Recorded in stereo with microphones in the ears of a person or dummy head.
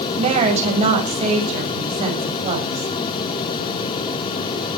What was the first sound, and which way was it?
A woman speaking, 30° right (ahead or behind).